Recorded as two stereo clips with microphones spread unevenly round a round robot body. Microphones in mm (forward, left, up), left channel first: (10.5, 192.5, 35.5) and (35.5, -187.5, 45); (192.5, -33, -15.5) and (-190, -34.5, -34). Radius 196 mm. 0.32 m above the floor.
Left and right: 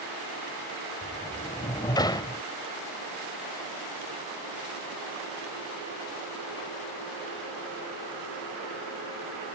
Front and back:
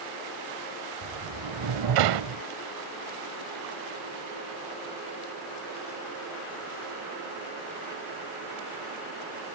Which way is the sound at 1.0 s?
170° left.